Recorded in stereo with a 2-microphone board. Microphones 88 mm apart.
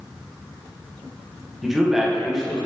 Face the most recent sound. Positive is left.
turn(degrees=-5)  # may be behind; listen again after turning